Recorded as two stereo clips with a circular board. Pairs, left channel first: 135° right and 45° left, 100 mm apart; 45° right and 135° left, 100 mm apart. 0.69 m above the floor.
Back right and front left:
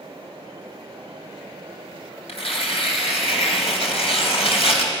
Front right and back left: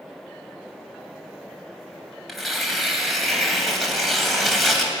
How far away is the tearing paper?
About 3.5 m.